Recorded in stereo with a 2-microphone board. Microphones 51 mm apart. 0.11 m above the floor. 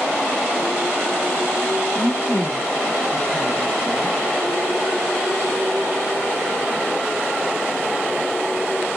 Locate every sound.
1.9 s a woman speaking: 50° left (ahead or behind), 1.9 m